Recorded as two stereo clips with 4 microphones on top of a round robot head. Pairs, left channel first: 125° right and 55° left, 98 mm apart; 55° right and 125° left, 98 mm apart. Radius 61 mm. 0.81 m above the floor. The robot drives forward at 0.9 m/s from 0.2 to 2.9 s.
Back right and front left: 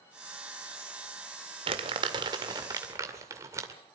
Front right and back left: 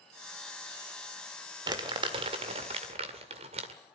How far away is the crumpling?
About 2.0 m.